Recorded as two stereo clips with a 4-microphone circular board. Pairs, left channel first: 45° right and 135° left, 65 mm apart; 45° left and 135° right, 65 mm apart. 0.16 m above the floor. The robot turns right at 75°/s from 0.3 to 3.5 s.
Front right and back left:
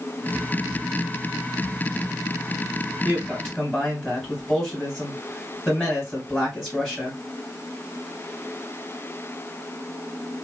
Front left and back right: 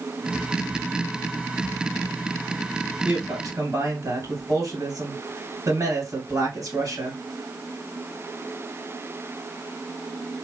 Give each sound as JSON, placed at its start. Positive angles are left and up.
{"t": 3.0, "sound": "a woman speaking", "azimuth_deg": -170, "distance_m": 2.5}